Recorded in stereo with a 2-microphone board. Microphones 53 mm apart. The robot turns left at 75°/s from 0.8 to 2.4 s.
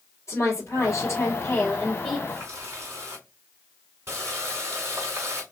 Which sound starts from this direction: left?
A woman speaking, at 0.3 s.